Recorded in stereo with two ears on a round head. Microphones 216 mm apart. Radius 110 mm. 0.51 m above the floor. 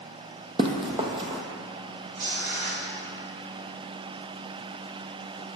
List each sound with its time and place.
0.6 s running footsteps: 20° right (ahead or behind), 0.8 m
2.1 s tearing paper: 65° right (ahead or behind), 2.5 m